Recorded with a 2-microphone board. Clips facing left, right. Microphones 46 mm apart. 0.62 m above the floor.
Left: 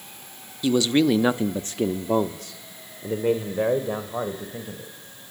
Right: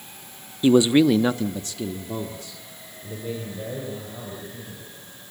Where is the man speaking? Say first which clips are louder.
Right 4 dB; 30° right (ahead or behind), 0.8 m; by 4.9 s 80° left, 3 m.